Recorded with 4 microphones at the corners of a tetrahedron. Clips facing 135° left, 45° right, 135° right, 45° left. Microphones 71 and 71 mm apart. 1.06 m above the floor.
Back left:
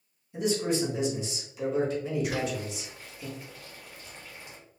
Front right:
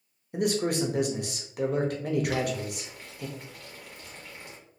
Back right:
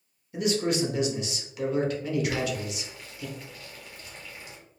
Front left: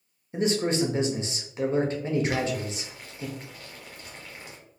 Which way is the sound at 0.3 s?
15° right.